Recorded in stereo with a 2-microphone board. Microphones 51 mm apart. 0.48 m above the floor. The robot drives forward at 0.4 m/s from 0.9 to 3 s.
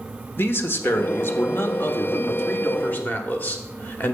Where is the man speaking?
45° left (ahead or behind), 1.1 m; by 4.1 s 35° left (ahead or behind), 1.4 m.